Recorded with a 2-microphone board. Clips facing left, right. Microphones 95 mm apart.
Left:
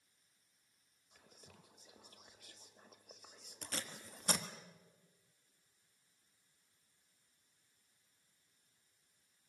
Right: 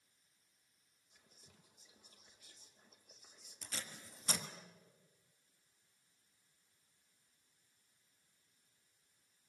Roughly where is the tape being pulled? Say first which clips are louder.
Left 4 dB; left.